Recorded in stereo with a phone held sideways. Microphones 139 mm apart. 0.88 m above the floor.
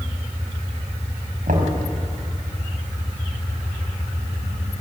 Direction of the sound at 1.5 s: 80° right.